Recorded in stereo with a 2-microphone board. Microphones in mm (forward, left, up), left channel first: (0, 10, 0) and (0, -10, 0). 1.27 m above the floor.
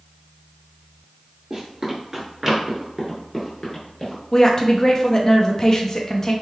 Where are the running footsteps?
35° right (ahead or behind), 1.5 m; by 4.2 s 35° left (ahead or behind), 1.4 m.